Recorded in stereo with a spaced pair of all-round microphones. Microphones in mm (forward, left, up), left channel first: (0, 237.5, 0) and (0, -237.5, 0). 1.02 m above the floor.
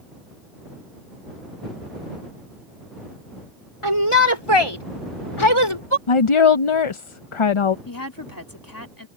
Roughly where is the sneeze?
I don't hear a sneeze.